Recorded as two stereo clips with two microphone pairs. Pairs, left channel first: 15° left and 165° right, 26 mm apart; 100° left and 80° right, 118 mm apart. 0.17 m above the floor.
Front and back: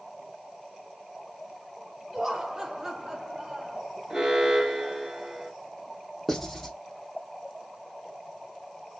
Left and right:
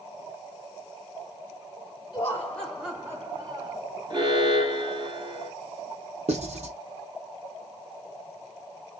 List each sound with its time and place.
2.1 s laughter: 135° left, 1.6 m; by 3.8 s 110° right, 2 m
4.1 s an alarm: 125° right, 3.5 m
6.3 s writing: 75° right, 2 m